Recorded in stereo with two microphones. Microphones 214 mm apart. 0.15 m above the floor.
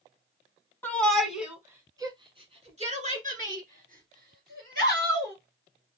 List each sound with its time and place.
0.8 s a shout: 10° left (ahead or behind), 1.1 m; by 5.3 s 50° right (ahead or behind), 3 m